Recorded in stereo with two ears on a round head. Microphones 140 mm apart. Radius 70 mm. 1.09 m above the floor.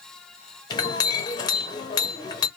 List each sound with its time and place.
0.7 s a clink: 25° left (ahead or behind), 0.8 m